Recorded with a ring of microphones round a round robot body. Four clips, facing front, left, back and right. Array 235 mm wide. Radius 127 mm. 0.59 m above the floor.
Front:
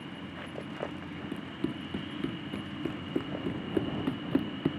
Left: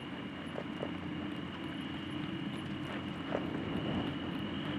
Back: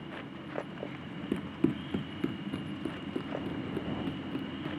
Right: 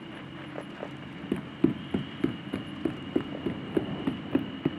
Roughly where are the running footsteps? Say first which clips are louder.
Right 13 dB, back 6 dB; right.